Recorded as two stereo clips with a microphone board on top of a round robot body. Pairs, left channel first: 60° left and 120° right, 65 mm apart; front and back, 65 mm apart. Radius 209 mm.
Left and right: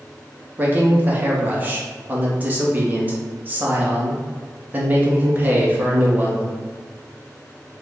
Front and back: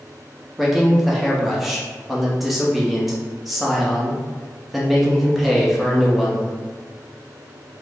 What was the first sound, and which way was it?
A man speaking, 95° right.